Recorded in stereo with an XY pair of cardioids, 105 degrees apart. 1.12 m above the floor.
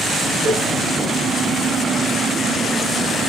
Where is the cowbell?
65° right, 5.5 m.